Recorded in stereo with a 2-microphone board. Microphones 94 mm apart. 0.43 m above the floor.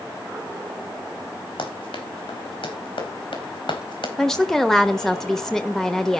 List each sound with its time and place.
1.6 s running footsteps: 85° left, 6 m; by 4.1 s 80° left, 4 m
4.2 s a woman speaking: 5° left (ahead or behind), 1.1 m